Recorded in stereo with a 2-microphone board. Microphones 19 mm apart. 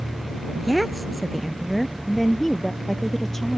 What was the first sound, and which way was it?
A woman speaking, 10° right (ahead or behind).